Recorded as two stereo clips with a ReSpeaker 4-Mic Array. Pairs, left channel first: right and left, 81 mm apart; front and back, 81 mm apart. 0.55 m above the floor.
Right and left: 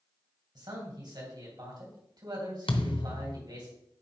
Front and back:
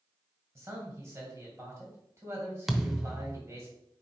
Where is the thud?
95° right, 0.7 m.